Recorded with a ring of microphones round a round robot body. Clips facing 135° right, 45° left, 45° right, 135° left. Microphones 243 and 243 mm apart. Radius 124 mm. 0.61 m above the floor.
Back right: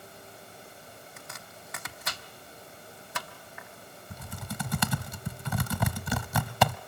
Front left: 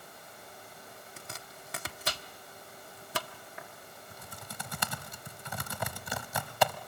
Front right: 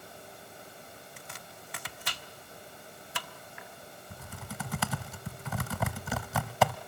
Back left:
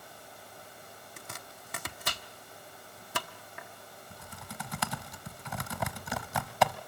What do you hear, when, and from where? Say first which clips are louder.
1.2 s chopping: even, even; 95° left, 1.0 m
4.1 s typing on a keyboard: back right 11 dB, front right 4 dB; 130° right, 0.7 m